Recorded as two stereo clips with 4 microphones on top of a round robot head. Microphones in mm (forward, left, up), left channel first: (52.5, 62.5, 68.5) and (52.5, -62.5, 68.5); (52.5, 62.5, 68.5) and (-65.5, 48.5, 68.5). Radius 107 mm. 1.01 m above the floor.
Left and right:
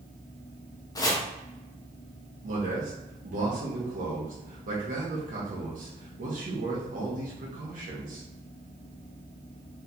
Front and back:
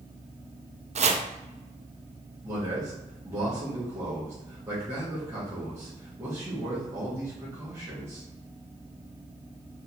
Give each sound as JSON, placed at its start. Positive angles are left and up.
{"t": 0.9, "sound": "chopping", "azimuth_deg": 160, "distance_m": 0.6}
{"t": 2.4, "sound": "a man speaking", "azimuth_deg": -100, "distance_m": 1.3}